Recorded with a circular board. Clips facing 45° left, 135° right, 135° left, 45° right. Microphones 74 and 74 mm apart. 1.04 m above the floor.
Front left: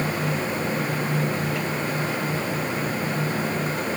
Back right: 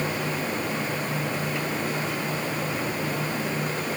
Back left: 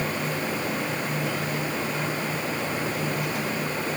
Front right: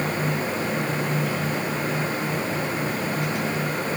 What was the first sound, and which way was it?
Only background noise.